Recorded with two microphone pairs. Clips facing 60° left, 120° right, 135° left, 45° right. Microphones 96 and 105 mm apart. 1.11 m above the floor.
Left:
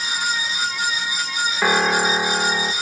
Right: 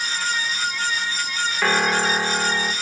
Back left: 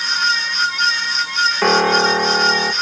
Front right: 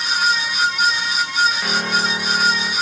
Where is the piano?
135° left, 1.6 m.